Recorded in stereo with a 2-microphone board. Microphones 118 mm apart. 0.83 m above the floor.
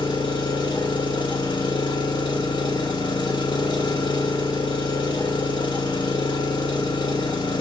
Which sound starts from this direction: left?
An engine running, at 0.0 s.